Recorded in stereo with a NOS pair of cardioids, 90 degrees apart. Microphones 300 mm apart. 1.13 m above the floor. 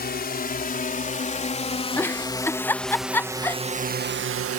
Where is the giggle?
5° left.